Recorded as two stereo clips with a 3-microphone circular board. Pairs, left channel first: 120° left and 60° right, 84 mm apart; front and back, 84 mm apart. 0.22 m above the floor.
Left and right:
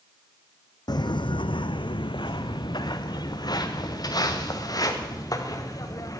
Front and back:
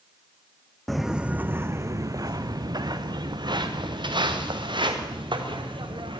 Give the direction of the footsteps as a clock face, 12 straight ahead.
9 o'clock.